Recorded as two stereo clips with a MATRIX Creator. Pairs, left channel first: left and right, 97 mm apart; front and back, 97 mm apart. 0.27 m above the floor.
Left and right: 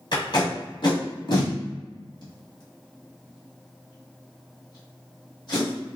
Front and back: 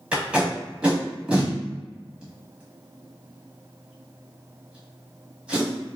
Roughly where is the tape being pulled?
Left.